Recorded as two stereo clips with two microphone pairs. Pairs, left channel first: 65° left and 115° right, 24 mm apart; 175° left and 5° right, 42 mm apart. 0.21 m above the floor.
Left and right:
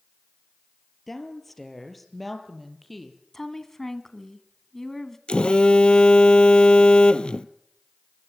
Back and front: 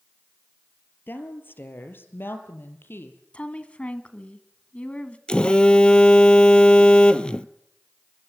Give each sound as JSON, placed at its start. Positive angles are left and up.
{"t": 1.1, "sound": "a woman speaking", "azimuth_deg": 140, "distance_m": 3.5}
{"t": 3.3, "sound": "a woman speaking", "azimuth_deg": 130, "distance_m": 2.0}
{"t": 5.3, "sound": "a phone buzzing", "azimuth_deg": 105, "distance_m": 1.1}